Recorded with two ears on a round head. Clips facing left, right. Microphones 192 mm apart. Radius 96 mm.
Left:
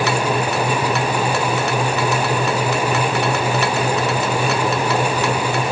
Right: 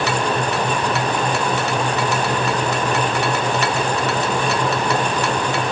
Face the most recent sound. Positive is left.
No sound to turn to.